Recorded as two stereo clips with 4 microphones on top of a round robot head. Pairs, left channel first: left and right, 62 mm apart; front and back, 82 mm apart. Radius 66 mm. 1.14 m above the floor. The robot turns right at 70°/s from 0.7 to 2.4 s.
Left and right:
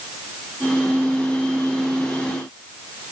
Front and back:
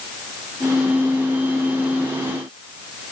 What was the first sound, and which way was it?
Only background noise.